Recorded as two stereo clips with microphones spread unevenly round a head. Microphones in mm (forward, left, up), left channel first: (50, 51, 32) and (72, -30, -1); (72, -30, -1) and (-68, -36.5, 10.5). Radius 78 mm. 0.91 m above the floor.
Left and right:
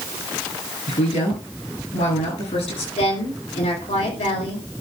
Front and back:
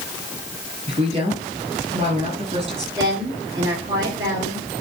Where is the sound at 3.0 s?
115° left, 4 m.